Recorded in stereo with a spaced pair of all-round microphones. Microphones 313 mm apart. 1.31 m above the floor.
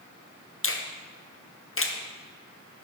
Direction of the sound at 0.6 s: 45° left (ahead or behind).